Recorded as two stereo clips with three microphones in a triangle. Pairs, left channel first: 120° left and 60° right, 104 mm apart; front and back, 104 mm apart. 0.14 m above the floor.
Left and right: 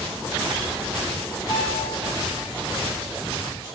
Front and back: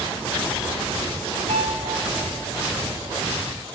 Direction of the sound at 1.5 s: 170° left.